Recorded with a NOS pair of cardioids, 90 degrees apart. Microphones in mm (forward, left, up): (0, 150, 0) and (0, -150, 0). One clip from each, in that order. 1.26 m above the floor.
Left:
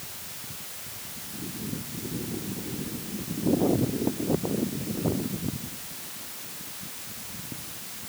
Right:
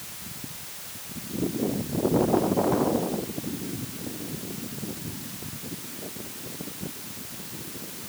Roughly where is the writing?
I don't hear writing.